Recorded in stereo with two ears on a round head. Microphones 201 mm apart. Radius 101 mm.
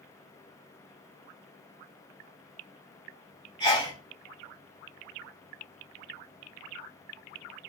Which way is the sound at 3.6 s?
20° left (ahead or behind).